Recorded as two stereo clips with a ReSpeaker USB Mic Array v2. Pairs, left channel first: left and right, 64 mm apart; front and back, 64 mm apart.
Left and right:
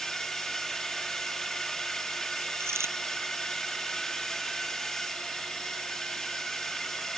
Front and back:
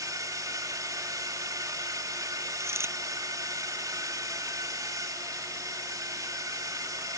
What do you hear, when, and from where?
0.0 s a drone: 170° left
2.6 s a dropped coin: 135° right